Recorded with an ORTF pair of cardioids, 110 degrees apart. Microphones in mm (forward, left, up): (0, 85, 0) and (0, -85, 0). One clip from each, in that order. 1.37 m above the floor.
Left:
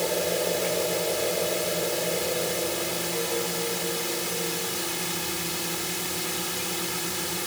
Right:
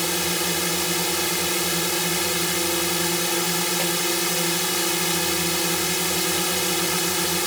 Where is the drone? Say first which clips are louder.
Right 2 dB; 50° right.